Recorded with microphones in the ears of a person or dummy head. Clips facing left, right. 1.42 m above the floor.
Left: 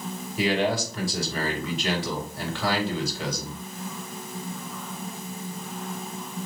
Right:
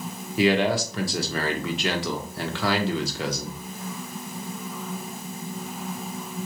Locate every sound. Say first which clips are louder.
0.4 s a man speaking: right 3 dB; 55° right (ahead or behind), 1.0 m